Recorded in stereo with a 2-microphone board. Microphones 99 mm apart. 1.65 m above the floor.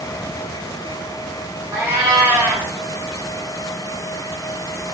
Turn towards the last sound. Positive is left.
turn(degrees=-20)  # may be behind; listen again after turning